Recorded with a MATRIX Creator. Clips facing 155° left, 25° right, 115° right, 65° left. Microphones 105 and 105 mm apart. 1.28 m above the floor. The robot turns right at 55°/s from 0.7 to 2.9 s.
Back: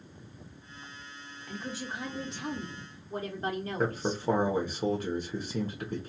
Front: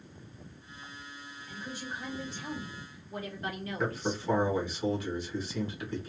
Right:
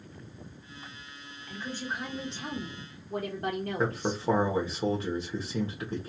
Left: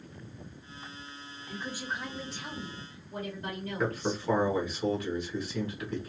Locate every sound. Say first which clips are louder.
1.5 s a woman speaking: back 3 dB, right 1 dB; 135° left, 1.0 m; by 4.2 s 145° right, 1.0 m
3.8 s a man speaking: back 1 dB, even; 165° right, 0.7 m